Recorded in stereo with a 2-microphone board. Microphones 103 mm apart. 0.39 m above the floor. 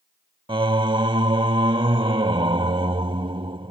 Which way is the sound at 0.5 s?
55° right (ahead or behind).